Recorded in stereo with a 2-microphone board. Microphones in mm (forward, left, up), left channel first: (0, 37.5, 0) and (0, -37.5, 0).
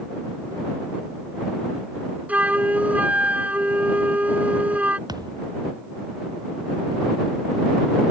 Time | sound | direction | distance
2.3 | a flute | 20° right (ahead or behind) | ?
5.1 | a thud | 65° right (ahead or behind) | ?